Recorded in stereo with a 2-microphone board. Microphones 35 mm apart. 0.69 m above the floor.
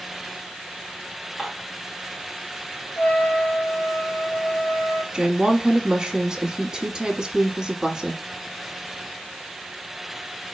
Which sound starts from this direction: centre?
Dishes clattering, at 1.4 s.